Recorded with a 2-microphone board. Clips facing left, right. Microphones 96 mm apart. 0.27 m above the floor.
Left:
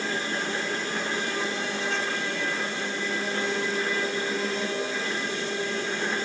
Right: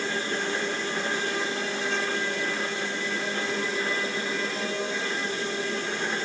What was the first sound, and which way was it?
Only background noise.